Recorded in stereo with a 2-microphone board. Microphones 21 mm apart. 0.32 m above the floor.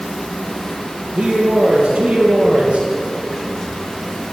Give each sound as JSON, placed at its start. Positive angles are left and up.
{"t": 1.1, "sound": "a man speaking", "side_deg": -60, "distance_m": 10.0}